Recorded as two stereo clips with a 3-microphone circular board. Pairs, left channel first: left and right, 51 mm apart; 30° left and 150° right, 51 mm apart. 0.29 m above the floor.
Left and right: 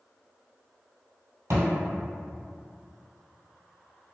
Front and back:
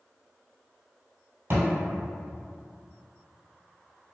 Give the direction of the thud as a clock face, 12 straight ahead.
4 o'clock.